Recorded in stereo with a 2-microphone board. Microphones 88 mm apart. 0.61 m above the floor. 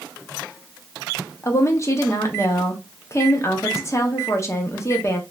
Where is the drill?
I don't hear a drill.